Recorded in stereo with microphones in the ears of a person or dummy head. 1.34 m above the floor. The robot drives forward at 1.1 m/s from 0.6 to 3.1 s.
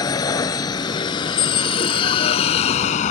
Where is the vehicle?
30° left (ahead or behind); by 3.1 s 50° left (ahead or behind).